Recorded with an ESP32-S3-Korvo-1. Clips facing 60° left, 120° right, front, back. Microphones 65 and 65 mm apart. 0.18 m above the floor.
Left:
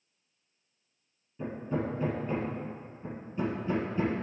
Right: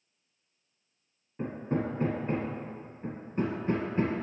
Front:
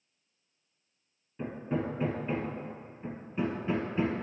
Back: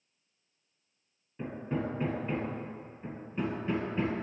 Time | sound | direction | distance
1.4 | hammering | 90° right | 1.6 m